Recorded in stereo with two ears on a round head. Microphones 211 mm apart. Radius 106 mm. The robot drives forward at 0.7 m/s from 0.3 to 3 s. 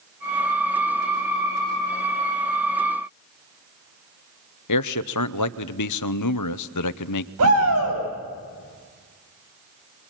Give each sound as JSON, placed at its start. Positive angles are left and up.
{"t": 4.7, "sound": "a man speaking", "side_deg": 85, "distance_m": 0.8}
{"t": 7.4, "sound": "a shout", "side_deg": -70, "distance_m": 9.0}